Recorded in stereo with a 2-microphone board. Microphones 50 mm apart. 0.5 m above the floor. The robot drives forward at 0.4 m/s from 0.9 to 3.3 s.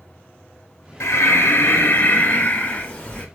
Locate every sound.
1.0 s breathing: 80° left, 0.5 m; by 3.2 s 25° left (ahead or behind), 1.1 m